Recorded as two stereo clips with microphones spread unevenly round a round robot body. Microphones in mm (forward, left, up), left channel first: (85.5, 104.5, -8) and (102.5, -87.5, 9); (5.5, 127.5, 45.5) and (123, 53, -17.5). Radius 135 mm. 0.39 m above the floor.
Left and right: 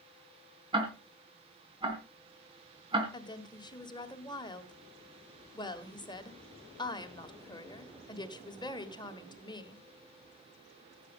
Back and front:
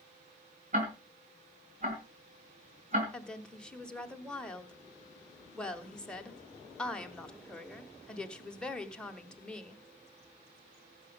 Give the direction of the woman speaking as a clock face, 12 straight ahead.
11 o'clock.